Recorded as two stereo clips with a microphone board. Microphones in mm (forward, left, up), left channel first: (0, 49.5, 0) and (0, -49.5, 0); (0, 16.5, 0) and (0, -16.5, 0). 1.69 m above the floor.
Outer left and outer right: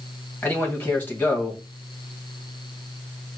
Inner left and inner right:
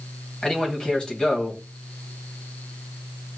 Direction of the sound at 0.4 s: 20° left (ahead or behind).